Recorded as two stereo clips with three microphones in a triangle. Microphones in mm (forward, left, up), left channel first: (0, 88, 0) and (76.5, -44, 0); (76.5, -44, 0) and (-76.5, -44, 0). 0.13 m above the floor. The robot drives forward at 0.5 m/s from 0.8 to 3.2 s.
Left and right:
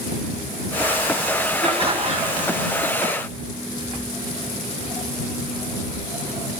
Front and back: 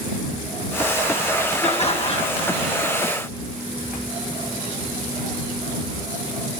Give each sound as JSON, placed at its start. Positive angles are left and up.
{"t": 1.6, "sound": "laughter", "azimuth_deg": -25, "distance_m": 1.7}